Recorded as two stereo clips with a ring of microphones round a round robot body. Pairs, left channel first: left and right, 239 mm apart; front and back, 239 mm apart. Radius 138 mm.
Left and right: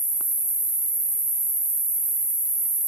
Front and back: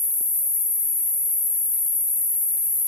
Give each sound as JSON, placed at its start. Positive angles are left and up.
{"t": 0.0, "sound": "an insect", "azimuth_deg": -30, "distance_m": 2.0}